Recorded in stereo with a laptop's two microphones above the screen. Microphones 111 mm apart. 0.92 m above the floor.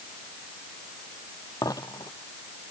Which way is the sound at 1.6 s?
30° left (ahead or behind).